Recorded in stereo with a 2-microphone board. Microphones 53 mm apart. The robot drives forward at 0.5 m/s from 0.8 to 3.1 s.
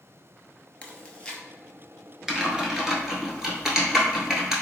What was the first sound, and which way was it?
Chewing, 25° left (ahead or behind).